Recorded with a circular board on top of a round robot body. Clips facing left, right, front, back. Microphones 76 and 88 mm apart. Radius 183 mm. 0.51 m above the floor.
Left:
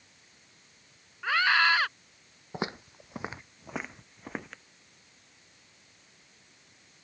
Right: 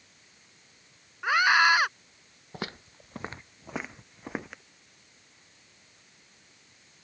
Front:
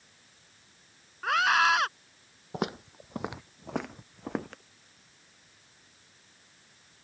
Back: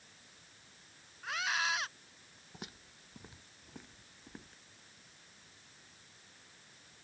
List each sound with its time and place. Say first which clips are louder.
1.2 s a scream: right 3 dB, front 12 dB; 20° right
2.5 s footsteps: left 4 dB, front 18 dB; 25° left; by 4.6 s 10° right